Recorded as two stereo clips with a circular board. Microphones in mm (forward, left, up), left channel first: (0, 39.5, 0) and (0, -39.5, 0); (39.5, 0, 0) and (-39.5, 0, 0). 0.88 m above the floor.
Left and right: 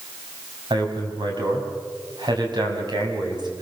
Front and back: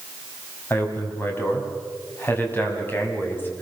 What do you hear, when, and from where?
0.7 s a man speaking: 65° right, 5 m